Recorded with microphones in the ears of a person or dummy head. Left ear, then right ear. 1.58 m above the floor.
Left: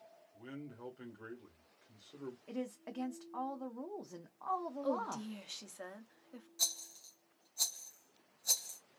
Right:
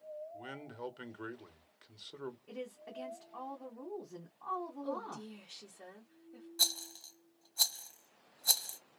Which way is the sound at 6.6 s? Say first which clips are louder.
Right 5 dB; 25° right (ahead or behind).